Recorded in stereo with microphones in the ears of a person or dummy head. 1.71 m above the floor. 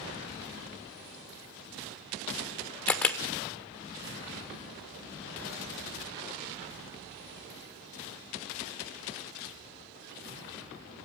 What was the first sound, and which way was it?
A camera shutter, 5° left (ahead or behind).